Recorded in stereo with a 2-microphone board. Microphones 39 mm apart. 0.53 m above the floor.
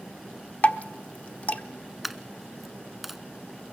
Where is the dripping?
40° left (ahead or behind), 0.9 m.